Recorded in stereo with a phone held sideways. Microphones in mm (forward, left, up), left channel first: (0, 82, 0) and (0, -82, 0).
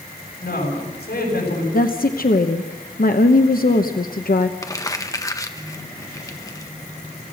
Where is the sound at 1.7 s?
65° left (ahead or behind), 1.0 m.